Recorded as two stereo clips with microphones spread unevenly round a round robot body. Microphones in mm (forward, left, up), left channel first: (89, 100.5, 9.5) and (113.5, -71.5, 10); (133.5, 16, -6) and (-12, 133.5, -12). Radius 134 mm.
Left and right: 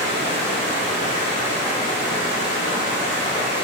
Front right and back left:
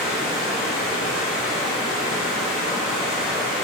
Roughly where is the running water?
Right.